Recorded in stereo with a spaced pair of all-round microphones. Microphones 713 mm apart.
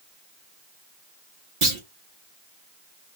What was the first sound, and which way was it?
A clunk, 45° right (ahead or behind).